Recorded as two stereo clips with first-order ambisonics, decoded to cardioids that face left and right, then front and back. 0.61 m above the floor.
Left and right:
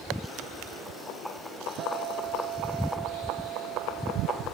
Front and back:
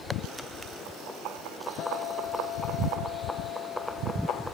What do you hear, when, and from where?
1.8 s a guitar: 50° right